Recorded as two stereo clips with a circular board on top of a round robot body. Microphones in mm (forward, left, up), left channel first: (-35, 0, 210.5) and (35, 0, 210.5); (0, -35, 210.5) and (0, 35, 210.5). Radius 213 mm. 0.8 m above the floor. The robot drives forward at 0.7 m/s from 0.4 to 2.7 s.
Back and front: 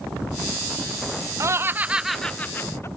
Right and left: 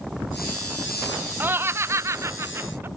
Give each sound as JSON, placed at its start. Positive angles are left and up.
{"t": 1.4, "sound": "laughter", "azimuth_deg": 35}